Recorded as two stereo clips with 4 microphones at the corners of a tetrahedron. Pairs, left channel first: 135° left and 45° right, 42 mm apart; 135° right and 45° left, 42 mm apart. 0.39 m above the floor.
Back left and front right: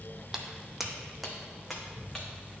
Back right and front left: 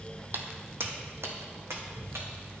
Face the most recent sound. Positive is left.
turn(degrees=45)